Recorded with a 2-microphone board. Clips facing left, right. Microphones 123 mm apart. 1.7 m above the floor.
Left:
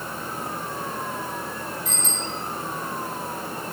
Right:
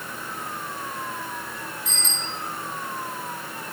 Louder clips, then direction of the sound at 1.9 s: Left 3 dB; 55° left (ahead or behind).